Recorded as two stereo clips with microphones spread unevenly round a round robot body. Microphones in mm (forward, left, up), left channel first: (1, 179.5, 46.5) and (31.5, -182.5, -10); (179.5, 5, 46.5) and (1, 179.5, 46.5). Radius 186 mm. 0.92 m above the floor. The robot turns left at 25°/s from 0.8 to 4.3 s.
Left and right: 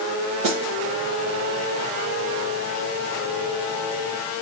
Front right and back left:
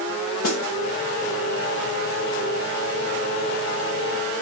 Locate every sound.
0.4 s a snare drum: 50° right, 2.5 m